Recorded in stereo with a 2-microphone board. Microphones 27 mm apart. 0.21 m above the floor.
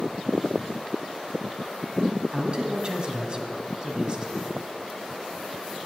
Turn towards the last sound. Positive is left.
turn(degrees=-35)  # may be behind; listen again after turning